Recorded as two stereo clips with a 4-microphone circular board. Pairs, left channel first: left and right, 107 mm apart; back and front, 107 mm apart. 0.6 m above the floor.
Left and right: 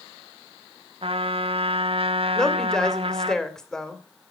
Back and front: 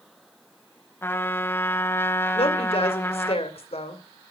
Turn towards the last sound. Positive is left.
turn(degrees=175)